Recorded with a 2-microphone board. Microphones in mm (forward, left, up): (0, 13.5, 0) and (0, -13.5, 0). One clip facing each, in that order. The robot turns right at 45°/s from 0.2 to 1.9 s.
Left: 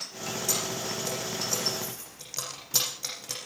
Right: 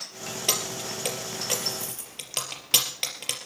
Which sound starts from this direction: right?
Keys jangling, at 0.5 s.